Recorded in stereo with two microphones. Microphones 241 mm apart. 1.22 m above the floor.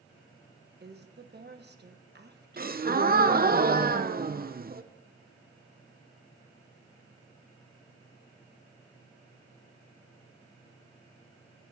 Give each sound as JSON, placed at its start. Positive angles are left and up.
{"t": 0.8, "sound": "a woman speaking", "side_deg": -40, "distance_m": 1.3}
{"t": 2.6, "sound": "a gasp", "side_deg": -35, "distance_m": 0.8}